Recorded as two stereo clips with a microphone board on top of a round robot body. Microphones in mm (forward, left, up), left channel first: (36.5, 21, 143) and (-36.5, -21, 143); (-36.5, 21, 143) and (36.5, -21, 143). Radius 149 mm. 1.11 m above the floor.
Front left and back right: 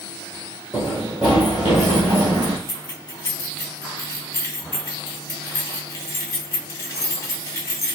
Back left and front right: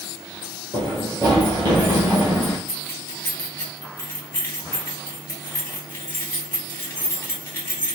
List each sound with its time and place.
0.7 s running footsteps: 65° right, 1.6 m; by 2.6 s 115° right, 1.3 m
2.7 s keys jangling: 85° left, 0.8 m